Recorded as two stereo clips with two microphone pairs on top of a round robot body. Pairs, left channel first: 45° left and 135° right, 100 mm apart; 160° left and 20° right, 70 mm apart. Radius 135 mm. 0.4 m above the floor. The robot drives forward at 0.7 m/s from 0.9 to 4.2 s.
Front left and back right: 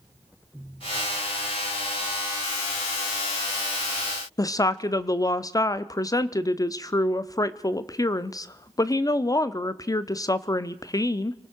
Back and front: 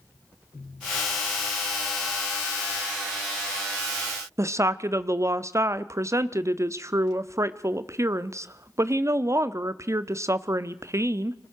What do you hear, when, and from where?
4.4 s a woman speaking: straight ahead, 0.8 m